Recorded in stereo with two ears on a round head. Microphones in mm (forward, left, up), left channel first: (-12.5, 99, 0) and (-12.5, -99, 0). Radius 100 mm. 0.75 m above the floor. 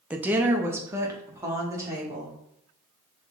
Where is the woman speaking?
5° right (ahead or behind), 0.5 m; by 2.3 s 15° right (ahead or behind), 1.7 m.